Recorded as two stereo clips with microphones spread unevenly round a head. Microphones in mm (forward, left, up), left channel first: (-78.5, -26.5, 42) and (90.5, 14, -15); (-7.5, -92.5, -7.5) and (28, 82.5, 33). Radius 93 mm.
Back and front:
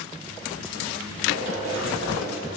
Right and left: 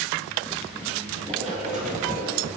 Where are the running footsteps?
35° left, 3 m; by 2.5 s 65° left, 3 m.